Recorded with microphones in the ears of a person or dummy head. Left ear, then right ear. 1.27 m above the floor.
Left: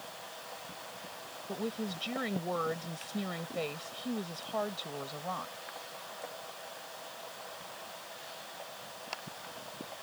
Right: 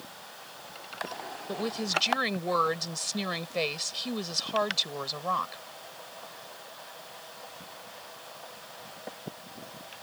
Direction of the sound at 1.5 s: 60° right (ahead or behind).